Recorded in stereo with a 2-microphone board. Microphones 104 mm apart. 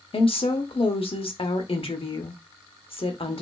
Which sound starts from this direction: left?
A woman speaking, at 0.1 s.